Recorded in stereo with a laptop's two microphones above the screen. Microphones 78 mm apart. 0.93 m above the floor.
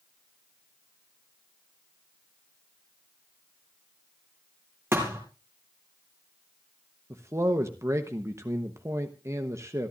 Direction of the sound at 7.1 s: 40° right (ahead or behind).